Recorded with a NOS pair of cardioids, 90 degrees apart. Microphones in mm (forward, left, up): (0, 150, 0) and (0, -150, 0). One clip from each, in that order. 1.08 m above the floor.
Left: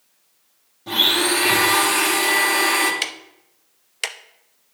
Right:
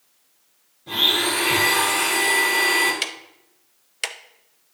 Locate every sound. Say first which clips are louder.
0.9 s a blender: left 2 dB; 60° left, 2.5 m
3.0 s ticking: left 1 dB; 5° left, 0.5 m